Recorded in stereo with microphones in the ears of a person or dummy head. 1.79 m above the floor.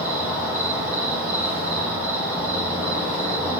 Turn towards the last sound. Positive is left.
turn(degrees=-10)  # may be behind; listen again after turning